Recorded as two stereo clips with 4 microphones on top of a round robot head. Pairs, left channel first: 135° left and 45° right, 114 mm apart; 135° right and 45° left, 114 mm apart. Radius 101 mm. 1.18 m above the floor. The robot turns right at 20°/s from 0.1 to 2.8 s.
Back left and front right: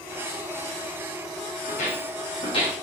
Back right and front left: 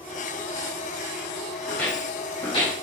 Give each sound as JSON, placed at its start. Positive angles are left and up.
{"t": 1.7, "sound": "footsteps", "azimuth_deg": 145, "distance_m": 4.0}